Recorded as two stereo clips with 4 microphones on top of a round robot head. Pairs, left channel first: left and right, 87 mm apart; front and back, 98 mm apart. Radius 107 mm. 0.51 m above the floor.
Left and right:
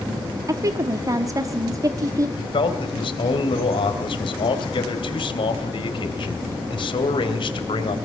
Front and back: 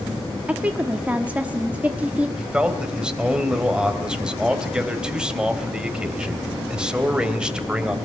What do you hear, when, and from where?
0.5 s a woman speaking: 110° right, 1.2 m
2.4 s a man speaking: 100° left, 3 m